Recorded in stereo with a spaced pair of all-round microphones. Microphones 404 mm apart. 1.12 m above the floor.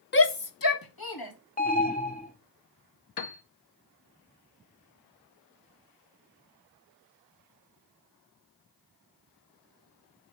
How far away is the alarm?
About 0.9 m.